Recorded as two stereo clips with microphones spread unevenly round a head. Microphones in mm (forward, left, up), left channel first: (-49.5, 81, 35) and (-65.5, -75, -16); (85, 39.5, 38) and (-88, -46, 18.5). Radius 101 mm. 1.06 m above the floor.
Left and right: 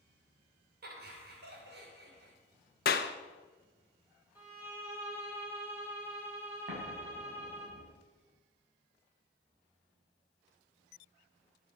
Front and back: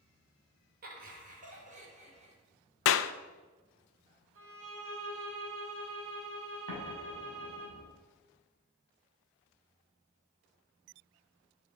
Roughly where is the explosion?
Behind right.